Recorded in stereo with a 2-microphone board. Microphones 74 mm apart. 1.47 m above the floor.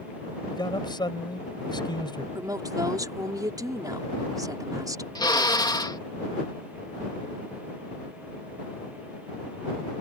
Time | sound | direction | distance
0.5 | a man speaking | 80° left | ?
2.4 | a woman speaking | 55° right (ahead or behind) | ?
5.2 | a drill | 70° left (ahead or behind) | ?